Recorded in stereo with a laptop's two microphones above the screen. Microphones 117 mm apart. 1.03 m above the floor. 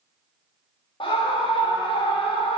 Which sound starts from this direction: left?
A scream, at 1.0 s.